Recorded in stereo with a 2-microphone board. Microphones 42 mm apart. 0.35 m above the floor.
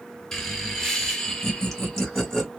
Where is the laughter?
15° left (ahead or behind), 1.4 m; by 2.5 s 10° left (ahead or behind), 1.4 m.